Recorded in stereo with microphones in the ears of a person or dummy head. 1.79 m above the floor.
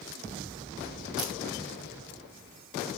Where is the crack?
5° right (ahead or behind), 5 m.